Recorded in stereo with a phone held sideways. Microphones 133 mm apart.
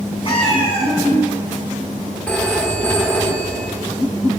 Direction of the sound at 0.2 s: 40° left (ahead or behind).